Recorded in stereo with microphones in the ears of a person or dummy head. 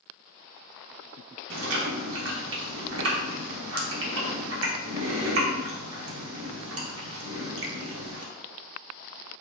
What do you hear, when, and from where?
1.5 s chewing: 70° right (ahead or behind), 0.8 m